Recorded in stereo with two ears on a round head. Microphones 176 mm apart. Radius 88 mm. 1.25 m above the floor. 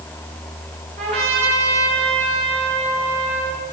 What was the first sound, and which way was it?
A trumpet, 35° right (ahead or behind).